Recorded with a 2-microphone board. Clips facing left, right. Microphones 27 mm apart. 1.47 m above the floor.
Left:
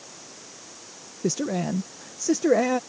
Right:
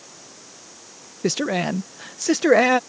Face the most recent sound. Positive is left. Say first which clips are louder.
# right 4 dB
turn(degrees=-70)  # may be behind; listen again after turning